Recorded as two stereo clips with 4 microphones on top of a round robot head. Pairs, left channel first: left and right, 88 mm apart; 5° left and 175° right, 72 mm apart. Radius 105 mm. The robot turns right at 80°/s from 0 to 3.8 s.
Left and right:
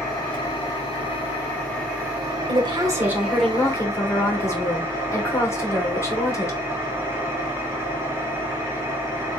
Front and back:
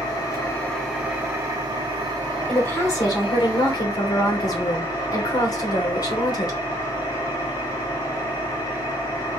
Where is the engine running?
25° left, 2 m; by 9.4 s 30° right, 2 m.